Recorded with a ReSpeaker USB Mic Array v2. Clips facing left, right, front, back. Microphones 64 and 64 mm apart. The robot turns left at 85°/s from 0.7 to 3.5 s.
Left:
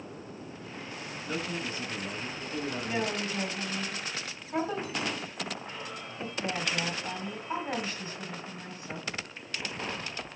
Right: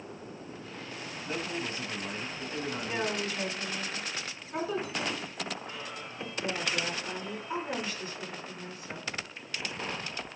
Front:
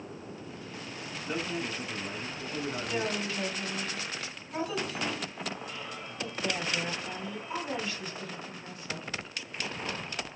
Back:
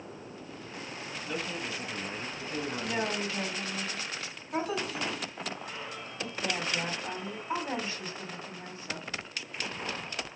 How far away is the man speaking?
About 1.6 m.